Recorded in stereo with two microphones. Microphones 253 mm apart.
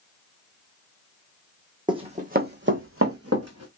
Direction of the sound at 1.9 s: 15° right (ahead or behind).